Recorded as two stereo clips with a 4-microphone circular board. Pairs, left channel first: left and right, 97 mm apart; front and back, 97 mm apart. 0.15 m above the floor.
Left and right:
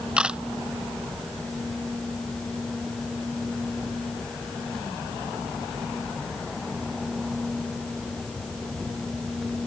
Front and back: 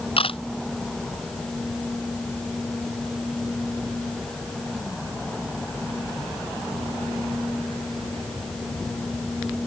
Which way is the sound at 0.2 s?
10° right.